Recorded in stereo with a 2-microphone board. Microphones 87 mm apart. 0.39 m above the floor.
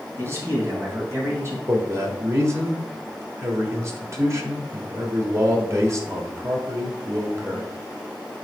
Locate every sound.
0.2 s a man speaking: 30° right (ahead or behind), 2.5 m
1.7 s a man speaking: 35° right (ahead or behind), 1.3 m